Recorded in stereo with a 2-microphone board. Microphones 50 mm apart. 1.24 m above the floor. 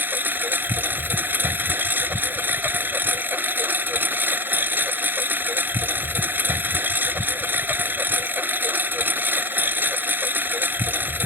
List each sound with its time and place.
0.0 s a lawn mower: 45° right (ahead or behind)